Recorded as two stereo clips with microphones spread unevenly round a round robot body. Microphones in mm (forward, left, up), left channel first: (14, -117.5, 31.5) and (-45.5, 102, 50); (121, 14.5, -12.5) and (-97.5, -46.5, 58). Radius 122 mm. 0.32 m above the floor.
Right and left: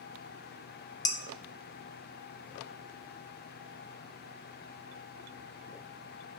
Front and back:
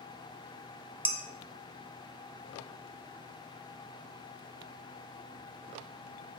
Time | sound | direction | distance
1.1 | dishes clattering | 50° right | 0.6 m